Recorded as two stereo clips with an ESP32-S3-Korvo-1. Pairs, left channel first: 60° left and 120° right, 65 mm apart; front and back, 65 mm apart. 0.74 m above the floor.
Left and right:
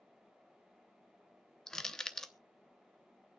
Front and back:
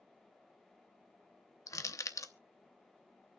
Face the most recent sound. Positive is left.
turn(degrees=-20)